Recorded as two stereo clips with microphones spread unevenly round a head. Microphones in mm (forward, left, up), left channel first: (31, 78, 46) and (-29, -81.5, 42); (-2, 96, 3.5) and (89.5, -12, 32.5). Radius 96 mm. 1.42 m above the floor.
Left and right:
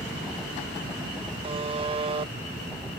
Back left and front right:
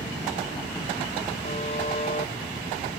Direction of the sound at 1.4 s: 170° right.